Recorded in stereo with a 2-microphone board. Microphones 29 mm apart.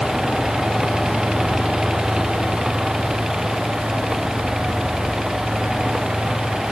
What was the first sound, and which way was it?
Only background noise.